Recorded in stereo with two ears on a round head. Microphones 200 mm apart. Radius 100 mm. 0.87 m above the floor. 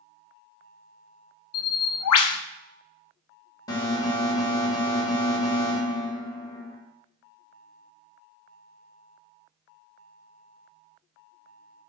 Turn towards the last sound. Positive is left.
turn(degrees=15)  # may be behind; listen again after turning